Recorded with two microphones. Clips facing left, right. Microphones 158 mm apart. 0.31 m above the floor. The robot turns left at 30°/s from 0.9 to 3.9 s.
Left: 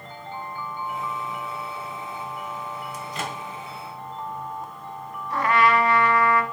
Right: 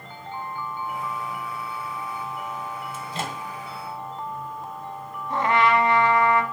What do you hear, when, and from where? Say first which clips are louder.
2.9 s a microwave: even; 30° right (ahead or behind), 1.5 m; by 3.4 s 35° right (ahead or behind), 1.5 m
5.3 s a trumpet: even; 25° right (ahead or behind), 0.9 m